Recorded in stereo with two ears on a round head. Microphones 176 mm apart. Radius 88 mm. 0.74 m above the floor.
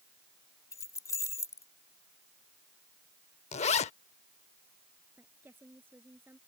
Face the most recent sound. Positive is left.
turn(degrees=-10)  # may be behind; listen again after turning